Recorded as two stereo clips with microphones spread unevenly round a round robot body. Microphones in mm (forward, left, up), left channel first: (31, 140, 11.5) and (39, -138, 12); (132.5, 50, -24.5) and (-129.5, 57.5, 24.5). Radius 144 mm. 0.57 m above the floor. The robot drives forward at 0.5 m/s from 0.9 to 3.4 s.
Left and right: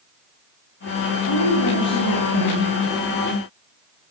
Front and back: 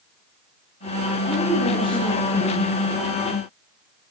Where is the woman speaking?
65° left, 7.5 m; by 2.7 s 75° left, 7 m.